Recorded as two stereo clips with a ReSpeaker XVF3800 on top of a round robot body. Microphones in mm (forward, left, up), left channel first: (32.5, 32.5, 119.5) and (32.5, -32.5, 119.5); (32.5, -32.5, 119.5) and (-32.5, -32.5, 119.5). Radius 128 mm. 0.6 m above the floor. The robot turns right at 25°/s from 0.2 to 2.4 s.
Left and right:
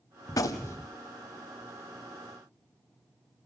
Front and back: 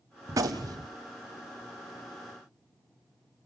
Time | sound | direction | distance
0.3 | a gunshot | 130° left | 0.8 m